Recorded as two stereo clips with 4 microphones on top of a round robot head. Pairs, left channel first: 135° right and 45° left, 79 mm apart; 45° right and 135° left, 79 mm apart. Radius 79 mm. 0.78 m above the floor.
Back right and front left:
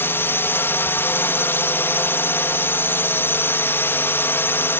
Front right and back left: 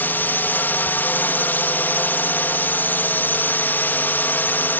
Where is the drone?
95° right.